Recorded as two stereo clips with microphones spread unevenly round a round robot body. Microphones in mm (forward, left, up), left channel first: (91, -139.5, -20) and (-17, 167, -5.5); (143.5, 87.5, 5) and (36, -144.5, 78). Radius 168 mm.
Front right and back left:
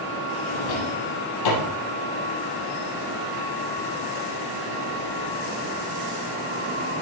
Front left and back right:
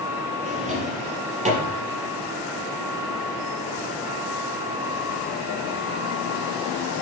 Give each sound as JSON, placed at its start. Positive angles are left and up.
{"t": 0.5, "sound": "a drawer", "azimuth_deg": -50, "distance_m": 4.0}